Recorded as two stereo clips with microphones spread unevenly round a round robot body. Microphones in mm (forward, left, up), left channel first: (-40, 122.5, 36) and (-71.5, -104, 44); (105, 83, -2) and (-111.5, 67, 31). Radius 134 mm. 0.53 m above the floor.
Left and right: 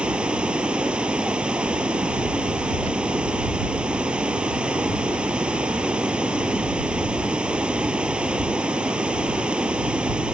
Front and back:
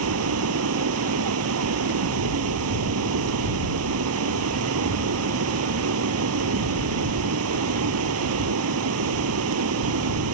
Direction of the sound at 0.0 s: 175° left.